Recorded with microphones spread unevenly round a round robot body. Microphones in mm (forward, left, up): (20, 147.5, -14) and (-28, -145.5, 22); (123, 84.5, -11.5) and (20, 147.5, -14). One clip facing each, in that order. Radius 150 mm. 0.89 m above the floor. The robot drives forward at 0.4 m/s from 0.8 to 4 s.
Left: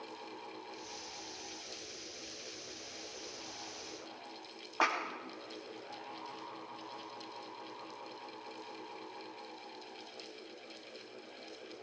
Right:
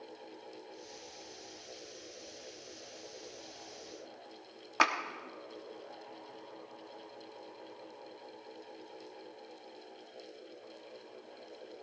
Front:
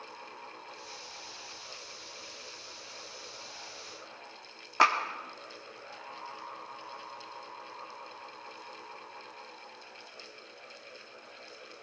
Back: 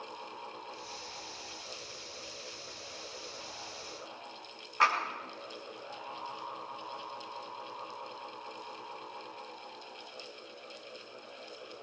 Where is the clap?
55° right, 1.5 m.